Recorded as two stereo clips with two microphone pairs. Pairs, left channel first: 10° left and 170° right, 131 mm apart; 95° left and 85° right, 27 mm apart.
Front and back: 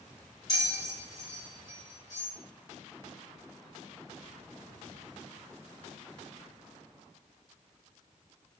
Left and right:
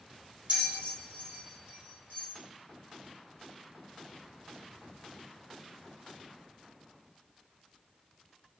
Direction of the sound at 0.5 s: 50° right.